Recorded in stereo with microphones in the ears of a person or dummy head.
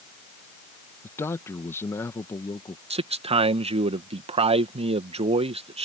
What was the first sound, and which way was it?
A man speaking, 15° left (ahead or behind).